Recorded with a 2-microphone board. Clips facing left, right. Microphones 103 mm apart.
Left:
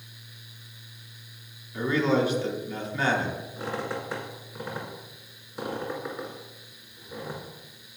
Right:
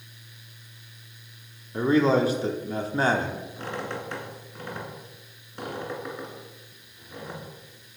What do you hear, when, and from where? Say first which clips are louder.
1.7 s a man speaking: right 4 dB; 35° right (ahead or behind), 1.0 m
3.6 s a squeak: left 2 dB; 5° left (ahead or behind), 2 m